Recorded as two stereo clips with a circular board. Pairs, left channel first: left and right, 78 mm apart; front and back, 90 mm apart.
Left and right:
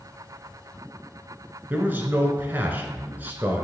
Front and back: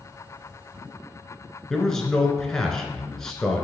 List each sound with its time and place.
1.7 s a man speaking: 75° right, 1.1 m